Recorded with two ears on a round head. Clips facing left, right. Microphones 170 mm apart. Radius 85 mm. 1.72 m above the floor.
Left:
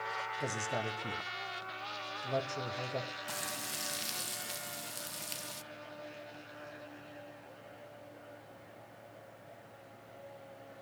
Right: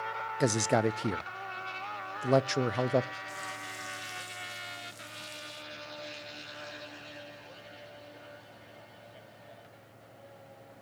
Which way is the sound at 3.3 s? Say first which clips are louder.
Even; 80° left.